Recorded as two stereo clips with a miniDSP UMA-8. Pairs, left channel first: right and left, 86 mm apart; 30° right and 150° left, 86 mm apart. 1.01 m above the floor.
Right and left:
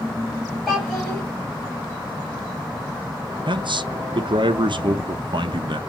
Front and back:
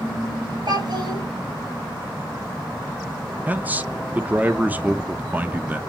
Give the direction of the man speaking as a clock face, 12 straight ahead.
9 o'clock.